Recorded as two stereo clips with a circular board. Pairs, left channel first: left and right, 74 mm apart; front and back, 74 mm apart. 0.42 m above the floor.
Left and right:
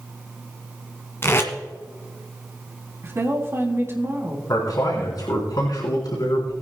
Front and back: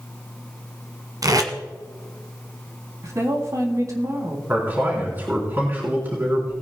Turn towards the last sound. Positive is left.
turn(degrees=115)